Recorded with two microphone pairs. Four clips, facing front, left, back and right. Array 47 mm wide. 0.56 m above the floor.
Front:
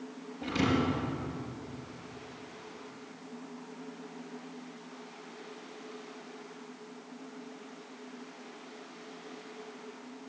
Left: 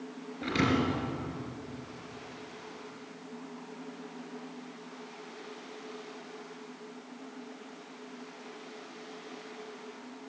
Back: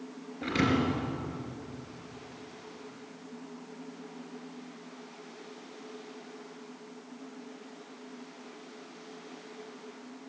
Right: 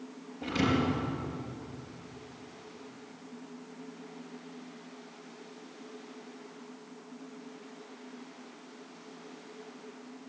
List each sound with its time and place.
0.4 s a thud: 145° left, 4.5 m